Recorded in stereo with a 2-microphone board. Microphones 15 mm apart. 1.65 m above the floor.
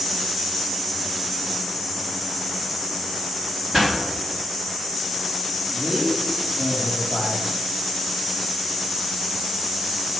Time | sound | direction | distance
3.7 | a pop | 10° right (ahead or behind) | 4.5 m
5.7 | a man speaking | 45° right (ahead or behind) | 4 m